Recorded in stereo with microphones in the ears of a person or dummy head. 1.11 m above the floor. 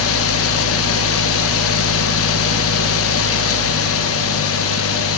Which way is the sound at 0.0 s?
70° left (ahead or behind).